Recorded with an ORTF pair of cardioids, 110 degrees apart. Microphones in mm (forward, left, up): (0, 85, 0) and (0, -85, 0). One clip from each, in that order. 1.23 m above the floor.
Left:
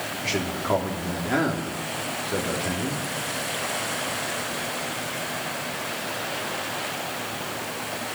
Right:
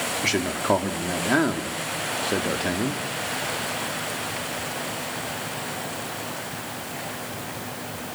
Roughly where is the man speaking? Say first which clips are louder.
Right 3 dB; ahead right.